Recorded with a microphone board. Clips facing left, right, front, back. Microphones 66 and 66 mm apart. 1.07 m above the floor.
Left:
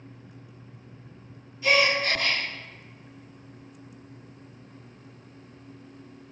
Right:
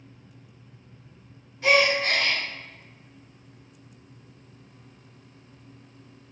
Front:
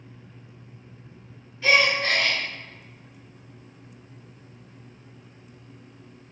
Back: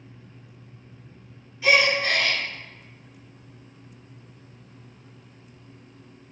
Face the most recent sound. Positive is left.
turn(degrees=-100)